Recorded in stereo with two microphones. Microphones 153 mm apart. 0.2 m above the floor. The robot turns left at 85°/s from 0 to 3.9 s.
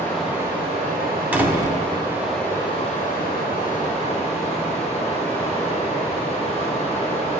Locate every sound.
0.0 s running water: 15° left, 3 m; by 7.4 s 45° left, 3 m
1.3 s a door slam: 20° right, 1.0 m; by 1.8 s 65° right, 1.0 m